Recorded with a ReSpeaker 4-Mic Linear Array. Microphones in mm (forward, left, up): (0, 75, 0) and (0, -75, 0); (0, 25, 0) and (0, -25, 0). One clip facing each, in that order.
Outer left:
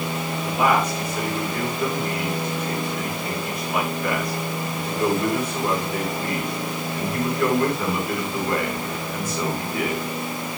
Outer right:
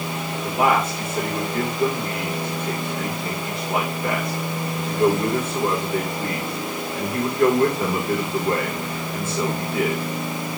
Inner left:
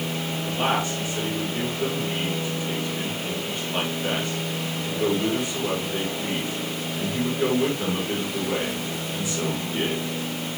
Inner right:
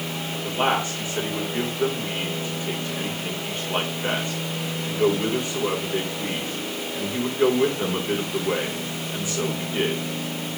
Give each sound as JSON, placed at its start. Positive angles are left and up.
{"t": 0.4, "sound": "a man speaking", "side_deg": -25, "distance_m": 9.5}